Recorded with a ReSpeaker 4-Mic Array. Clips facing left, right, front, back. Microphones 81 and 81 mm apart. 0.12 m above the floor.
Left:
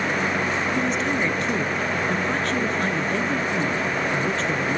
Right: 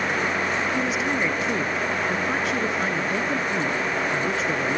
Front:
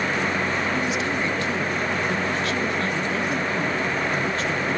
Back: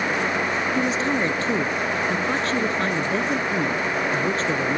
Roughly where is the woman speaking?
Behind.